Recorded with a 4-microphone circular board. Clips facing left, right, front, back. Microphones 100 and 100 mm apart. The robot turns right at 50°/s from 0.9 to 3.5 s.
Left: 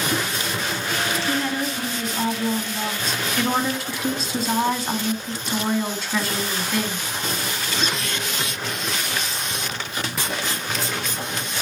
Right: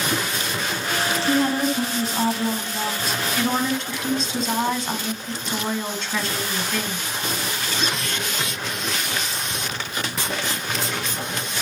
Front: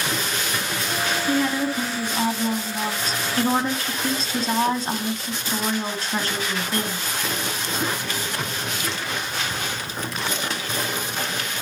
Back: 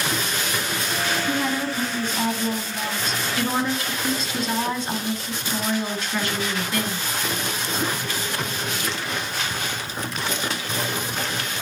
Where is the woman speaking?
105° right, 1.7 m; by 7.0 s 10° left, 1.7 m.